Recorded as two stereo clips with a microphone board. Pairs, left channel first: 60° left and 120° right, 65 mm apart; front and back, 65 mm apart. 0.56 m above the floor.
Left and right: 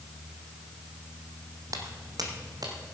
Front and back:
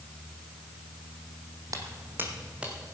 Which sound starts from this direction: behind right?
Footsteps, at 1.7 s.